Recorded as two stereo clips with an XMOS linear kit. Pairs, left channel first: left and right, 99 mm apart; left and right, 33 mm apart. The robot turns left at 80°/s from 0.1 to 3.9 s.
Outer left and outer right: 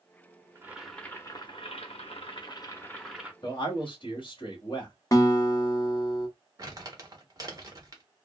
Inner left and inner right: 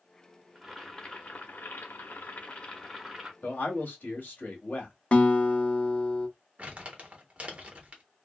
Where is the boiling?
155° right, 0.8 m; by 3.3 s 15° right, 0.8 m.